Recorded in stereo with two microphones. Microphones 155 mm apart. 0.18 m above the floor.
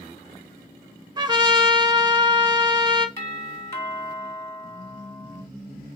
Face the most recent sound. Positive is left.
turn(degrees=15)  # may be behind; listen again after turning